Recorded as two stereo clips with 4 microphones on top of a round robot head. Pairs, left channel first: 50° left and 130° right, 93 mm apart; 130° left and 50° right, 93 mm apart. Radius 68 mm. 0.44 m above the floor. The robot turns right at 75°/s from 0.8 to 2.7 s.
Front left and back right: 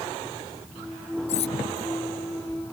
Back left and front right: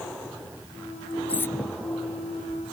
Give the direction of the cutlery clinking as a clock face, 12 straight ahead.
10 o'clock.